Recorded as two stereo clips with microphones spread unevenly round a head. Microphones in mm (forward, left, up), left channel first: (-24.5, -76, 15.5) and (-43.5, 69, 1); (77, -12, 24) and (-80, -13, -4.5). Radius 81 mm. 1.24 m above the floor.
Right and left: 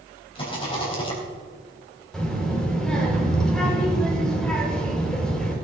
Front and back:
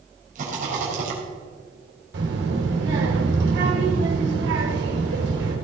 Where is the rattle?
135° right, 4 m.